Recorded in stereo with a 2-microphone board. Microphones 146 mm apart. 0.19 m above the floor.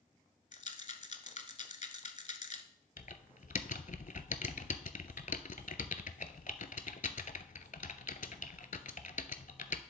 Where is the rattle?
55° left (ahead or behind), 0.8 m.